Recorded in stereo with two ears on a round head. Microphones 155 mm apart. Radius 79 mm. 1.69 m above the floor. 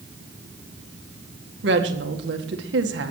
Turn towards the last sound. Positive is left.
turn(degrees=-65)  # may be behind; listen again after turning